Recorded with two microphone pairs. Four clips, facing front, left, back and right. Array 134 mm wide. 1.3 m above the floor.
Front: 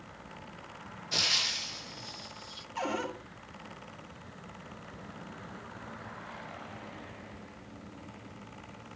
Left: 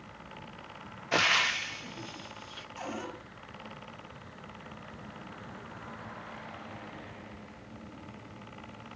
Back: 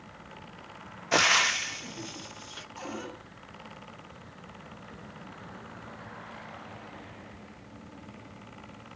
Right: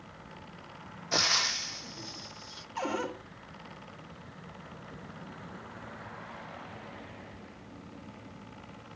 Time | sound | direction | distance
1.1 | frying | 170° left | 0.7 m
2.8 | a cupboard door | 55° right | 4 m